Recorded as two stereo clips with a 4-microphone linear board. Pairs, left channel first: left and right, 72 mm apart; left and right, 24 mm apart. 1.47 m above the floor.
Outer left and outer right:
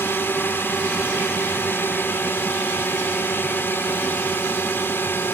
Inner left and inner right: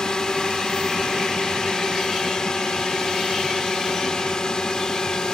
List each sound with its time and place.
0.0 s a drone: 30° left (ahead or behind)